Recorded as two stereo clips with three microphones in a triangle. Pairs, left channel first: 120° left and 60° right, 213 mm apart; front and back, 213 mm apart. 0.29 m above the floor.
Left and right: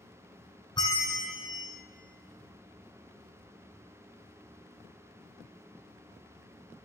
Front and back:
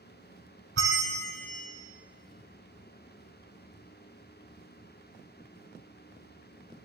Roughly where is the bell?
Behind.